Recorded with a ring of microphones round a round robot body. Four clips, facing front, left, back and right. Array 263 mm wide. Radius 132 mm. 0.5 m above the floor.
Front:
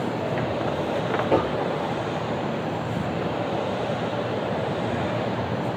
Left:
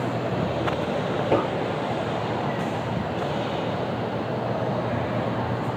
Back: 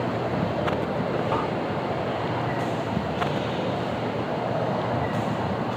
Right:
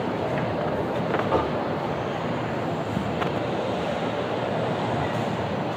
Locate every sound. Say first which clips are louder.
1.3 s knocking: left 4 dB, front 4 dB; 45° left, 7.5 m